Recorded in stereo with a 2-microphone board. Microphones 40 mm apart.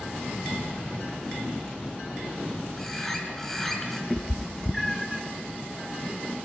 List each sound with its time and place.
2.8 s a bird: 10° left (ahead or behind), 2 m
4.1 s a cat meowing: 5° left (ahead or behind), 0.6 m